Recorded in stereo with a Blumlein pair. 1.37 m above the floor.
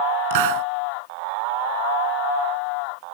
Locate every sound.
0.3 s a hiss: 50° right